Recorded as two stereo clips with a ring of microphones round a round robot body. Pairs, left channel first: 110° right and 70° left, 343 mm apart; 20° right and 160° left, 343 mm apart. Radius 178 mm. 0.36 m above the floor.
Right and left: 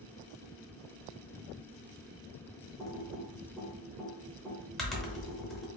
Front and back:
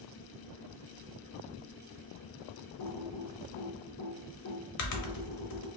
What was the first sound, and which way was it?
Typing on a keyboard, 25° right.